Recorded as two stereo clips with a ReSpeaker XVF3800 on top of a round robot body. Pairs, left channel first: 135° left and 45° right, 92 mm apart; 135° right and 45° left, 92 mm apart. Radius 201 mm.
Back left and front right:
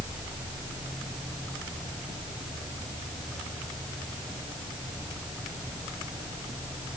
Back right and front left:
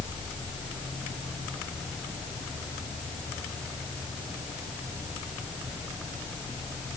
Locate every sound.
Only background noise.